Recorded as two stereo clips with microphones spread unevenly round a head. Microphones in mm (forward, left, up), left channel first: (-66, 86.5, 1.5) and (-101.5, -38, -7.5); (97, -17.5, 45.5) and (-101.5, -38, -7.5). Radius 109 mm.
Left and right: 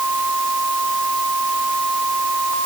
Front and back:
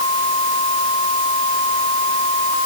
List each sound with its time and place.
Only background noise.